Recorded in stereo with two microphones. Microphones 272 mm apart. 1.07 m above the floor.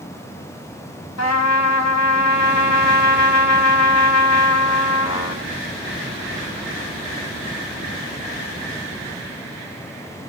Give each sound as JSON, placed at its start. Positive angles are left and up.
{"t": 1.2, "sound": "a trumpet", "side_deg": 75, "distance_m": 0.6}